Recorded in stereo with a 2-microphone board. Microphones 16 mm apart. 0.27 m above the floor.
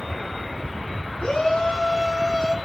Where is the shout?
55° left (ahead or behind), 2.5 m; by 2.5 s 45° left (ahead or behind), 3 m.